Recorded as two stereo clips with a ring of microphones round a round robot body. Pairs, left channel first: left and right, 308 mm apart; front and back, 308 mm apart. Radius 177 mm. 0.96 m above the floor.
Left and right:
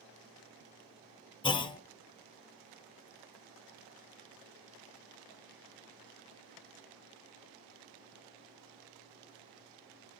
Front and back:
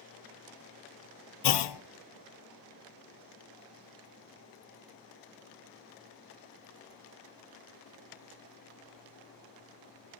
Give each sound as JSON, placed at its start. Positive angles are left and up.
{"t": 1.4, "sound": "a clunk", "azimuth_deg": 15, "distance_m": 0.6}